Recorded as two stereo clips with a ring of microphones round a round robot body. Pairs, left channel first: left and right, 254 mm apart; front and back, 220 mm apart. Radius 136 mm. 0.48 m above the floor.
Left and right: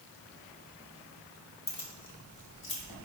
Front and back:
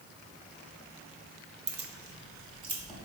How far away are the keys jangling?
About 0.6 m.